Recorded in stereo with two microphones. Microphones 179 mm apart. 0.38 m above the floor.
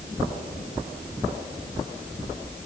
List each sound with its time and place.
Only background noise.